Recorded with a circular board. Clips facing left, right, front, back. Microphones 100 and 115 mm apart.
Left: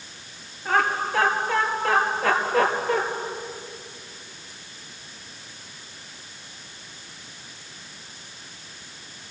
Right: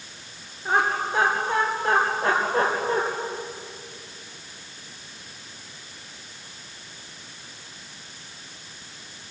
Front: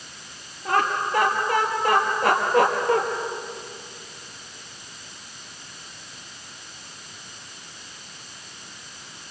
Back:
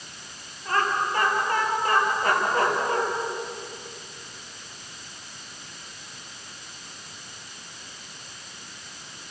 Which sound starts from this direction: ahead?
Laughter, at 0.7 s.